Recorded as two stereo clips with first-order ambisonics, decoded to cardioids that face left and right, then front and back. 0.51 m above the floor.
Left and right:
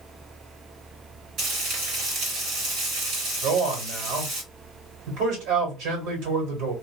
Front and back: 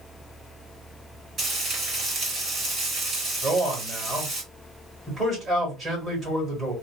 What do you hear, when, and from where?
1.4 s frying: 120° right, 1.9 m
3.4 s a man speaking: 105° right, 1.8 m